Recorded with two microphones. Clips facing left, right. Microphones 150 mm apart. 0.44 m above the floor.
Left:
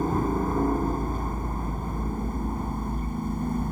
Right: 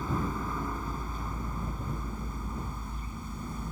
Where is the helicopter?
50° left (ahead or behind); by 3.7 s 55° left (ahead or behind).